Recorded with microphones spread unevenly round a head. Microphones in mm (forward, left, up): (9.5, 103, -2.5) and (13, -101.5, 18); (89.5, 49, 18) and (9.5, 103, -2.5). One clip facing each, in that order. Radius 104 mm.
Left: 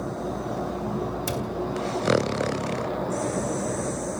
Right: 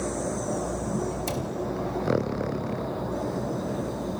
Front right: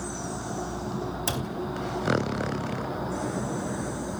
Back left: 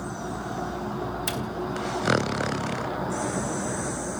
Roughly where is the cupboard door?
Ahead.